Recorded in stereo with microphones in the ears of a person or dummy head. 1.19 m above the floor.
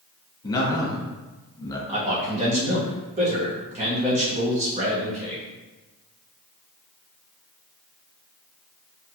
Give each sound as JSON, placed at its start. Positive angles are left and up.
{"t": 0.4, "sound": "a man speaking", "side_deg": 20, "distance_m": 0.7}
{"t": 1.9, "sound": "a man speaking", "side_deg": -40, "distance_m": 0.8}